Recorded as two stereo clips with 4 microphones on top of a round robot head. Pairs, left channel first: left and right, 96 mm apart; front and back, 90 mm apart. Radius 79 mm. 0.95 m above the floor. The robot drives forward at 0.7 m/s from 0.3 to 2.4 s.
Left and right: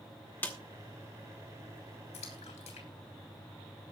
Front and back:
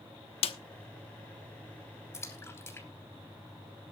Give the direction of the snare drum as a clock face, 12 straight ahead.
12 o'clock.